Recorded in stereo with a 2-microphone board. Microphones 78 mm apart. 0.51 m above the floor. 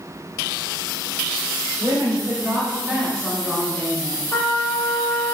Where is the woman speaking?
45° right (ahead or behind), 1.6 m; by 4.2 s 30° left (ahead or behind), 1.5 m.